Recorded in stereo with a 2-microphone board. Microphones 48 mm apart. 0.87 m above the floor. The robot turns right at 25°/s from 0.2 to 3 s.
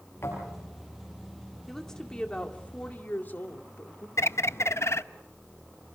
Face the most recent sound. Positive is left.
turn(degrees=65)  # may be behind; listen again after turning